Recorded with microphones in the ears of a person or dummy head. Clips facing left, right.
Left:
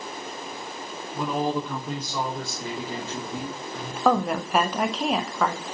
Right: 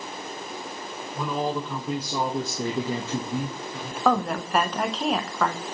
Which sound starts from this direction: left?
A man speaking, at 1.1 s.